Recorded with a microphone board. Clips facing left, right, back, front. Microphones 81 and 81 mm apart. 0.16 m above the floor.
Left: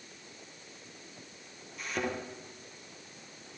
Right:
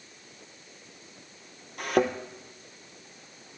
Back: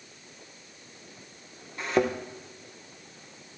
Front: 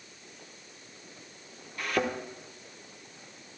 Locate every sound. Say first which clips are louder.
1.8 s a thud: right 10 dB, back 4 dB; 115° right, 1.3 m